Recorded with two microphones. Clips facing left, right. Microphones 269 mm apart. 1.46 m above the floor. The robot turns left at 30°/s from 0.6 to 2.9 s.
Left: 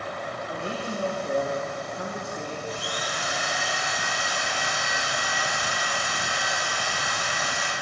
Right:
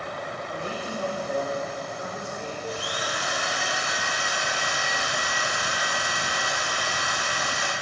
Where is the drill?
70° right (ahead or behind), 2.5 m; by 7.7 s 65° right (ahead or behind), 2.5 m.